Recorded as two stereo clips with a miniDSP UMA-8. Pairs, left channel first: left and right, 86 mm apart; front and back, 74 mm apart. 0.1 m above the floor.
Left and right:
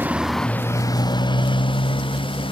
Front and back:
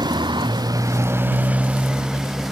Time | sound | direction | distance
0.0 | a motorcycle | 160° right | ?